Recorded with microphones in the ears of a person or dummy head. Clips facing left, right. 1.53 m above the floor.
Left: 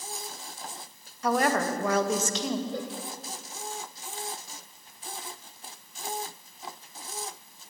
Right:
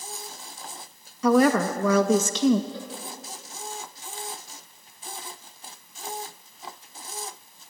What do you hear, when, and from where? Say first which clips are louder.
1.2 s a woman speaking: right 6 dB; 80° right, 2.5 m
2.7 s a cowbell: left 4 dB; 45° left (ahead or behind), 4 m